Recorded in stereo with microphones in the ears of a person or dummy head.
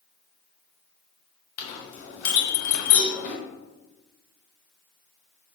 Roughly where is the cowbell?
Right.